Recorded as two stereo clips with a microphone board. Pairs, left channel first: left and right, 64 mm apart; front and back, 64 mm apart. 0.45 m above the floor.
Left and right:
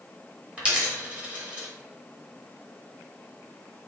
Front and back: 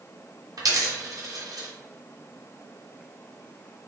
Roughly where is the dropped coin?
Behind.